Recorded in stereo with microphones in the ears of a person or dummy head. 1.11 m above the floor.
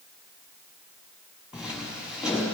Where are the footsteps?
5° right (ahead or behind), 6 m.